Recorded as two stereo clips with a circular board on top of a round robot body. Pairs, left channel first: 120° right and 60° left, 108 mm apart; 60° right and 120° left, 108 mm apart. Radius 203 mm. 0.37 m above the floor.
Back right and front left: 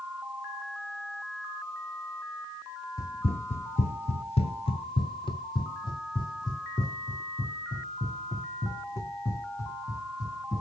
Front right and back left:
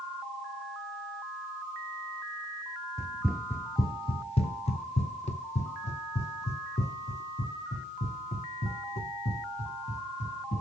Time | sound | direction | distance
3.0 | running footsteps | 175° right | 0.5 m